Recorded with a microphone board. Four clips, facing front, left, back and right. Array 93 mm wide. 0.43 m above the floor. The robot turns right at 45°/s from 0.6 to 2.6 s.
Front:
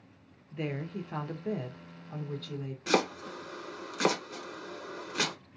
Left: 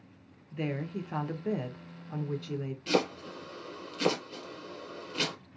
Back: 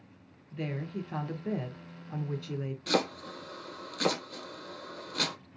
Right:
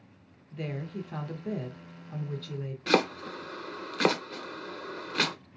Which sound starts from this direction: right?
Chopping, at 2.9 s.